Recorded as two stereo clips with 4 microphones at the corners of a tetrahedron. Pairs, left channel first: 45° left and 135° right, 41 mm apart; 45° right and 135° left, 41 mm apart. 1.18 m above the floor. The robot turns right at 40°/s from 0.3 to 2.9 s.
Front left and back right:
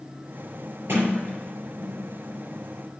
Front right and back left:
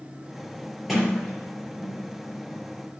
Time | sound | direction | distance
0.9 | a sliding door | 140° right | 5.5 m